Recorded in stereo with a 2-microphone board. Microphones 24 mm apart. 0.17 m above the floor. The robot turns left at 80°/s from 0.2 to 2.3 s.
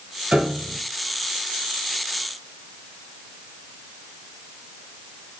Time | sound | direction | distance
0.3 | a piano | 95° right | 1.6 m